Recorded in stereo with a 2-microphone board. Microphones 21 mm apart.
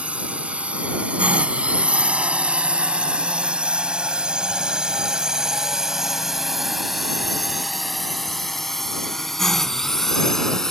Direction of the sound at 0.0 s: 70° right (ahead or behind).